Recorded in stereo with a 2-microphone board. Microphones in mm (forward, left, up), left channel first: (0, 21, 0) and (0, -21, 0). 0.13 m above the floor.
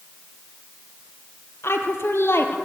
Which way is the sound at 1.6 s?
70° left (ahead or behind).